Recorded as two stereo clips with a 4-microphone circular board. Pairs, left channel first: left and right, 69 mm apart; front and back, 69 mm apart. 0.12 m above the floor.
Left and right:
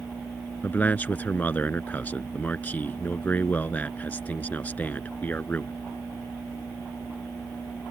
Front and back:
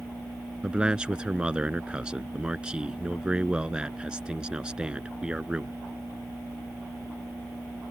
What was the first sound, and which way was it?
A man speaking, 120° left.